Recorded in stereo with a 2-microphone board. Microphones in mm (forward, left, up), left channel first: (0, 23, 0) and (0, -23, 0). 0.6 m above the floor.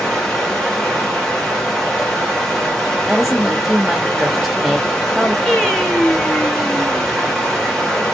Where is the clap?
No clap in this recording.